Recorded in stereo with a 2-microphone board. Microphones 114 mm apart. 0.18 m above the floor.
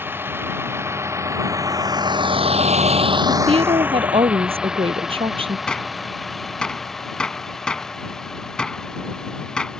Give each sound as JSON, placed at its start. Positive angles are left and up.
{"t": 0.0, "sound": "a vehicle", "side_deg": -20}
{"t": 3.3, "sound": "a woman speaking", "side_deg": -55}
{"t": 5.7, "sound": "a gunshot", "side_deg": 5}